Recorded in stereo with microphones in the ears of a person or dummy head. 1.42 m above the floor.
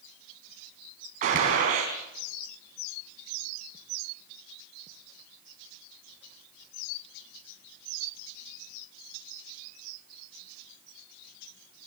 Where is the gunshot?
40° right (ahead or behind), 4 m.